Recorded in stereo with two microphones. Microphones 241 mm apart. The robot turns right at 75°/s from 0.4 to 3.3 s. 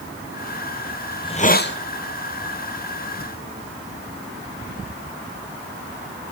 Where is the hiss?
10° left, 0.8 m; by 1.8 s 60° left, 0.8 m.